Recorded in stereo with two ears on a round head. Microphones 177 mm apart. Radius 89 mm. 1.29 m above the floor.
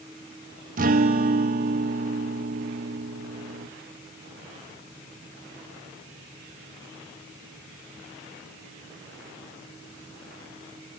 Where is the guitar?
45° right (ahead or behind), 1.0 m.